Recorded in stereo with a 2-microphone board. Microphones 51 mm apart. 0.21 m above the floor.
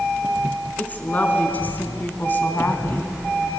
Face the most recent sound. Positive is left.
turn(degrees=40)  # may be behind; listen again after turning